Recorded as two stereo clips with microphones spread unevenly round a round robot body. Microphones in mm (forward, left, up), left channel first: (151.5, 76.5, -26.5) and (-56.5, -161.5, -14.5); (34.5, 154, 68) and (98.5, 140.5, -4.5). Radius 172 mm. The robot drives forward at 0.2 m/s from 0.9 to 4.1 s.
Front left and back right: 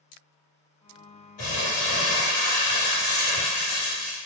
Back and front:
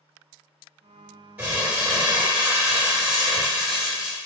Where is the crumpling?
55° left, 1.5 m; by 4.2 s 75° left, 1.2 m.